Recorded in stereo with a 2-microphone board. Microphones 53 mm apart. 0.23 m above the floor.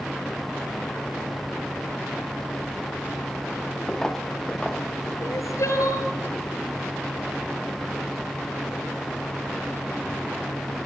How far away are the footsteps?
About 2 m.